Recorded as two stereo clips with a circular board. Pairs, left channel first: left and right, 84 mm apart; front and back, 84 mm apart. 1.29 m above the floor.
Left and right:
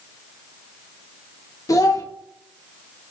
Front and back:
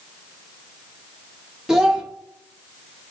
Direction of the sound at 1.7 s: 100° left.